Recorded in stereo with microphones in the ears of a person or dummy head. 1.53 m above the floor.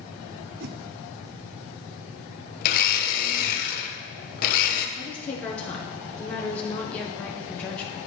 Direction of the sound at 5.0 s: 5° left (ahead or behind).